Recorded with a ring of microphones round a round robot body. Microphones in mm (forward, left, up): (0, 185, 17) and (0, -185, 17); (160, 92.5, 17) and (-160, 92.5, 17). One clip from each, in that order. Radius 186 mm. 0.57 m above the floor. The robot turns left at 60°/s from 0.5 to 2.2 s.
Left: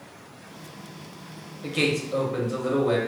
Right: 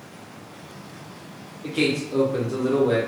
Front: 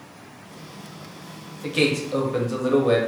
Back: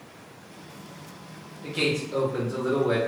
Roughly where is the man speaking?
Ahead left.